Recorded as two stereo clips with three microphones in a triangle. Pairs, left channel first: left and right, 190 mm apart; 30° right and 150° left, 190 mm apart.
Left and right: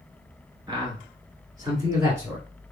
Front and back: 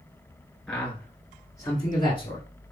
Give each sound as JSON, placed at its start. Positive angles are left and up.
{"t": 0.7, "sound": "a man speaking", "azimuth_deg": -110, "distance_m": 1.8}